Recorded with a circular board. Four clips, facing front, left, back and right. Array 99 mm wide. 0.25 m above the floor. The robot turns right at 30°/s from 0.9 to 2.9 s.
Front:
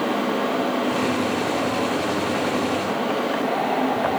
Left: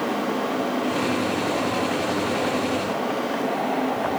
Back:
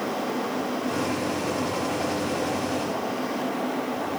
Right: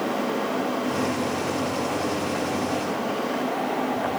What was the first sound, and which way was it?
Only background noise.